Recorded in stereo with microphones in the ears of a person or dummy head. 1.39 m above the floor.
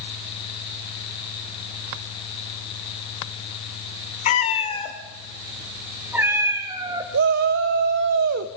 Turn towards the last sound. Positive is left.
turn(degrees=-55)  # may be behind; listen again after turning